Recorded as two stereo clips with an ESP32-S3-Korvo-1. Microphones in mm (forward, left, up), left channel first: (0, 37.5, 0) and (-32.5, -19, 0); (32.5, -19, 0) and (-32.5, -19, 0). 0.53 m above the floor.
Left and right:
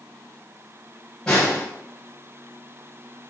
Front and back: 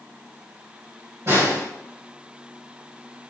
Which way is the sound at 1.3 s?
140° left.